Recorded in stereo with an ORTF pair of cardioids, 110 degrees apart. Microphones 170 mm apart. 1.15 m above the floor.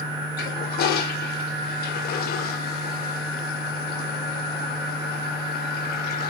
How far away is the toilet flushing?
About 2.5 m.